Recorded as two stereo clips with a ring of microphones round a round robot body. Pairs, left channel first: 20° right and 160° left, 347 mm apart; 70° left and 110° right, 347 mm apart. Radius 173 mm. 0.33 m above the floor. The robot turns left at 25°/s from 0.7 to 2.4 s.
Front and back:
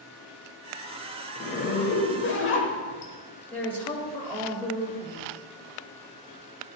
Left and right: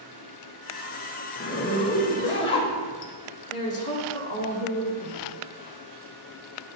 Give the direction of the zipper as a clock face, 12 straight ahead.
11 o'clock.